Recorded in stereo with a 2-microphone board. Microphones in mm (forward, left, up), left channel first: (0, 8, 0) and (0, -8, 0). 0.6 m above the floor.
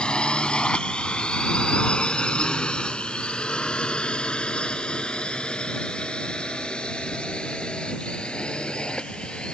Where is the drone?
75° left (ahead or behind).